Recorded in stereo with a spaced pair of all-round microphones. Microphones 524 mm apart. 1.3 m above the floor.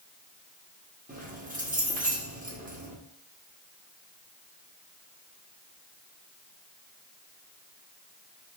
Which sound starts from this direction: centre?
Keys jangling, at 1.1 s.